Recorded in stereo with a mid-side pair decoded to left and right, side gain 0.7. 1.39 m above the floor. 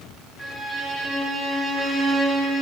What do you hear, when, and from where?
0.4 s a violin: 15° left, 5 m